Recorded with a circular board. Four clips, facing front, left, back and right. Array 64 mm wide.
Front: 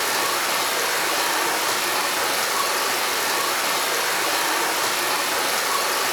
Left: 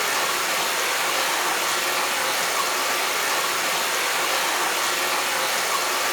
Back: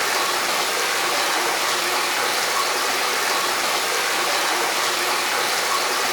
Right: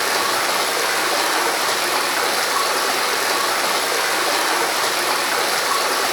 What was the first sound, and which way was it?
Running water, 95° right.